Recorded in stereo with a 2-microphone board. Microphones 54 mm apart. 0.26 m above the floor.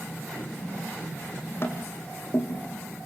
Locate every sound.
1.6 s tapping: 40° left (ahead or behind), 2.5 m